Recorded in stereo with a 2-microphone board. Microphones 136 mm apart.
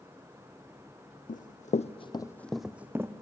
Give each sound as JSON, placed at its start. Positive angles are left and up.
{"t": 1.3, "sound": "running footsteps", "side_deg": 75, "distance_m": 0.7}